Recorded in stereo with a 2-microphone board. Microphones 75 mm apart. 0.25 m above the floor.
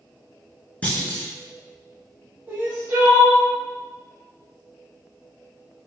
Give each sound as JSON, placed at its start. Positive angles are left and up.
{"t": 0.8, "sound": "a clunk", "side_deg": 20, "distance_m": 1.0}
{"t": 2.5, "sound": "crying", "side_deg": -20, "distance_m": 1.7}